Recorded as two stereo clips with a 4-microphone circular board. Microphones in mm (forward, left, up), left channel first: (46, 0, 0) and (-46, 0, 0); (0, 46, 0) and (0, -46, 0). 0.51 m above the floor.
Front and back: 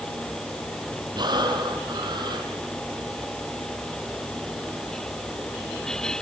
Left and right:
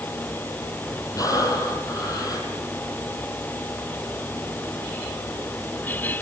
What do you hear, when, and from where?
1.1 s breathing: 140° left, 6.5 m